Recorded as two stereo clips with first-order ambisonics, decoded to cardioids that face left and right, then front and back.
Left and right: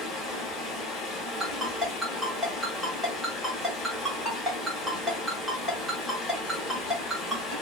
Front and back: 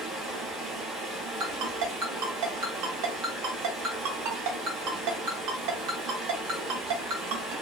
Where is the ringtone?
175° left, 1.0 m.